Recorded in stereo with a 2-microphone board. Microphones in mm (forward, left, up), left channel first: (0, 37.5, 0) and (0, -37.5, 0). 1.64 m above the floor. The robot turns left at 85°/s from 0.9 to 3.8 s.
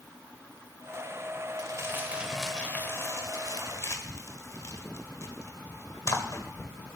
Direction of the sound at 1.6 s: 50° right (ahead or behind).